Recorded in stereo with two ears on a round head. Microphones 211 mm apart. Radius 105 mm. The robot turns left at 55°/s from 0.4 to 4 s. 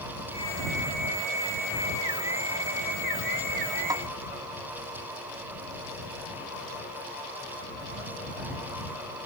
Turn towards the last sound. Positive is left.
turn(degrees=-10)  # may be behind; listen again after turning